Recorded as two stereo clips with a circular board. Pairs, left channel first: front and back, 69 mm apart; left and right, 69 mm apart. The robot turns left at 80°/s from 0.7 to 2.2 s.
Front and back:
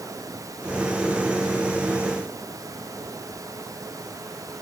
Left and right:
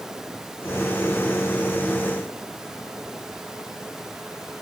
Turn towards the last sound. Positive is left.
No sound to turn to.